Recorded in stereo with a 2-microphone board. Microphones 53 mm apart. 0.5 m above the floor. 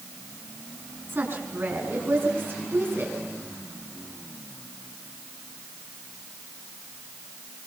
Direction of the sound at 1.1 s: 40° right (ahead or behind).